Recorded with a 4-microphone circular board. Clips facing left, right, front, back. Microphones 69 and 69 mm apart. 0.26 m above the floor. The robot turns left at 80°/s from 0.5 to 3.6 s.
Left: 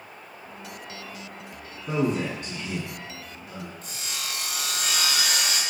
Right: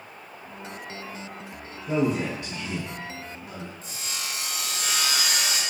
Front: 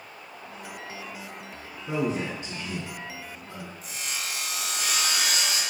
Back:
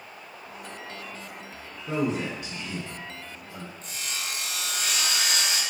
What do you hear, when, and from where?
1.9 s a man speaking: 90° left, 2.0 m; by 3.7 s 50° right, 2.0 m
3.8 s sawing: 80° left, 1.1 m